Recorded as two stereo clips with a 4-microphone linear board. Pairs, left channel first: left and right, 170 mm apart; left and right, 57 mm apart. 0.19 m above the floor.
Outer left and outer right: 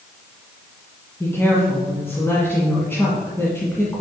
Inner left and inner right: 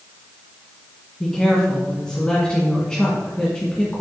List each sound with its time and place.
1.2 s a woman speaking: 15° left (ahead or behind), 1.6 m